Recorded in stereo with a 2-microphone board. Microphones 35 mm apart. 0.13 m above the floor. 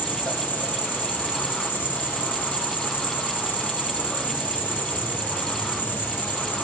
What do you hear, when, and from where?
0.0 s an insect: 65° left (ahead or behind), 1.5 m